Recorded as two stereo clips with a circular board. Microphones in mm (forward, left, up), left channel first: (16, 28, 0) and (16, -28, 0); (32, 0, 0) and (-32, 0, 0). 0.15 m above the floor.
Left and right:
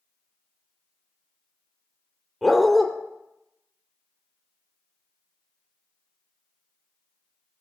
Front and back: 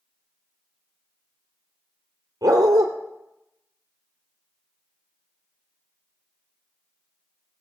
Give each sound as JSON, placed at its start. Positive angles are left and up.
{"t": 2.4, "sound": "a dog barking", "azimuth_deg": 180, "distance_m": 1.9}